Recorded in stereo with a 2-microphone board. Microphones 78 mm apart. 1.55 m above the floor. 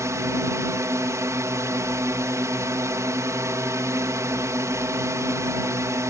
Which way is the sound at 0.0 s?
40° right (ahead or behind).